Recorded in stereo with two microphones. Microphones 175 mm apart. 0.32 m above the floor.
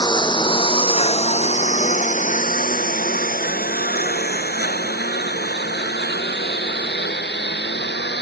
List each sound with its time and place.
0.0 s a lawn mower: 25° left (ahead or behind); by 8.2 s 80° left